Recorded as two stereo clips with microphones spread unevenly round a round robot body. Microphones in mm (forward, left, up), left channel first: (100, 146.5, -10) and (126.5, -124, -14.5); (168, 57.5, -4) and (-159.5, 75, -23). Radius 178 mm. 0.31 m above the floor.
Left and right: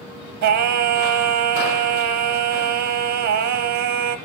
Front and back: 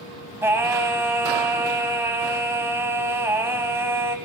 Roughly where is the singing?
Right.